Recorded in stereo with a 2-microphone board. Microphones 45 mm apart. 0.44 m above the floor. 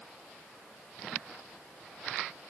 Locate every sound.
Only background noise.